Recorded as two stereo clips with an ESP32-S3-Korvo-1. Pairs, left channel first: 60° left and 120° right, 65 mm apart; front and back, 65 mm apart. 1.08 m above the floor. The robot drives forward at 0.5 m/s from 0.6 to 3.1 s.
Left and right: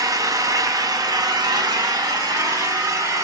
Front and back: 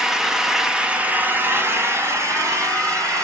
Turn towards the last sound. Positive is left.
turn(degrees=-150)